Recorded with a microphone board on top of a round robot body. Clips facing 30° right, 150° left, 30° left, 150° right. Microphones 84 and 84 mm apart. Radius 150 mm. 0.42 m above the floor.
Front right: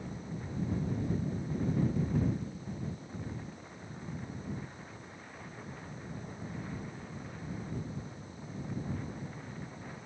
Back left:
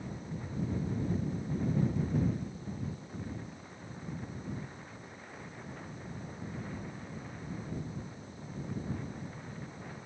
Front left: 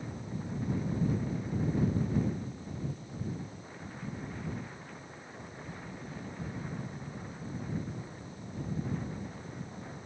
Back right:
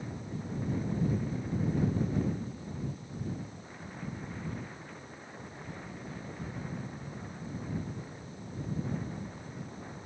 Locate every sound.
Only background noise.